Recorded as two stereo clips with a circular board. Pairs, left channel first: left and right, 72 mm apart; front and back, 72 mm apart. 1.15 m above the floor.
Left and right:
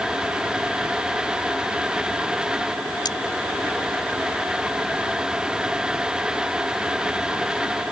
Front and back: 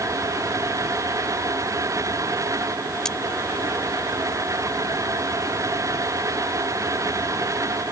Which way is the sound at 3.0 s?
80° left.